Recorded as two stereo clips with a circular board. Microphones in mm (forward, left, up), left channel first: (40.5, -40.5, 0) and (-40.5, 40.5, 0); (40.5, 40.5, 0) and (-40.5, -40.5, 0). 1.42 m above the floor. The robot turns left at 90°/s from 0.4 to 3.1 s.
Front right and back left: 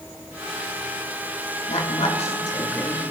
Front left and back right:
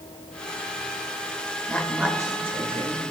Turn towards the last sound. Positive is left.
turn(degrees=-155)